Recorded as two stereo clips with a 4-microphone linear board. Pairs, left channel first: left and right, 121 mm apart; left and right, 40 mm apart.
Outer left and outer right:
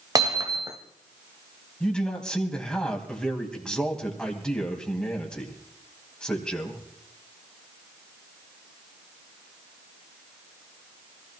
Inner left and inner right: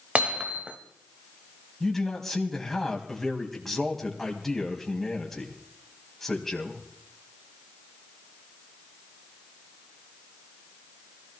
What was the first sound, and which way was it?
Hammering, 35° right (ahead or behind).